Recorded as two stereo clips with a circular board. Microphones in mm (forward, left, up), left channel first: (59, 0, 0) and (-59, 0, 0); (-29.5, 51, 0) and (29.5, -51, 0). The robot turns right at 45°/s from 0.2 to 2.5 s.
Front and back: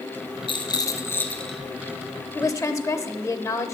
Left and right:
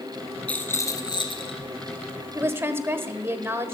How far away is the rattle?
About 1.5 m.